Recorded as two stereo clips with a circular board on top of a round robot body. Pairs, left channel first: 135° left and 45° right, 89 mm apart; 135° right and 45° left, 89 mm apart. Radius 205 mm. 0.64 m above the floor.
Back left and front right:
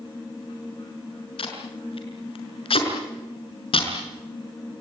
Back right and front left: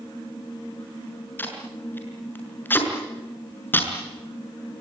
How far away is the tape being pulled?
About 6 m.